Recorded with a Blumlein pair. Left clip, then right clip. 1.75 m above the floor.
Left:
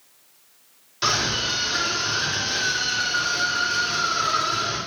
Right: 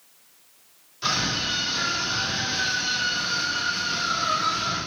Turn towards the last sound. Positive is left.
turn(degrees=30)